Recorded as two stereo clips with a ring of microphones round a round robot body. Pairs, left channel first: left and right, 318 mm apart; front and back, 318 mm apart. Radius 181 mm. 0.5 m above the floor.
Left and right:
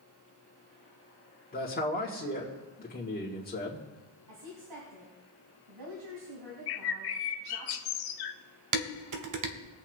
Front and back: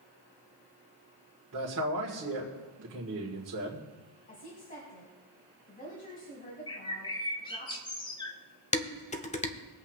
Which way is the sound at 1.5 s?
145° left.